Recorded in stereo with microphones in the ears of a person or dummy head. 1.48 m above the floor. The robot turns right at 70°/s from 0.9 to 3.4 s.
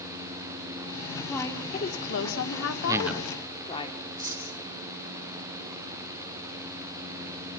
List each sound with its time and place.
1.3 s a woman speaking: 5° left, 3.5 m; by 3.9 s 155° left, 3.5 m
2.9 s a man speaking: 20° right, 0.7 m; by 3.3 s 15° left, 0.7 m
4.2 s cutlery clinking: 20° right (ahead or behind), 3.5 m